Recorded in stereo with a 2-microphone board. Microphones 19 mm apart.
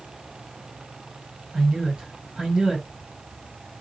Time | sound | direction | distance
1.5 | a man speaking | 55° right (ahead or behind) | 2.5 m